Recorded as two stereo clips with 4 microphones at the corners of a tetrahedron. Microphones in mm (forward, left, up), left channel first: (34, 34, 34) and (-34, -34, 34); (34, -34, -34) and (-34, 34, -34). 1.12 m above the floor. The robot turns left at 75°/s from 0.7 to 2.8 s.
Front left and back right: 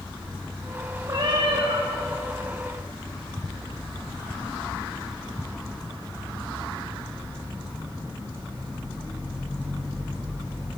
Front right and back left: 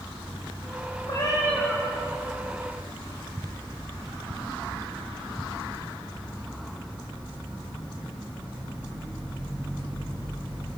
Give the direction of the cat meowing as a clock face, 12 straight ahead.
3 o'clock.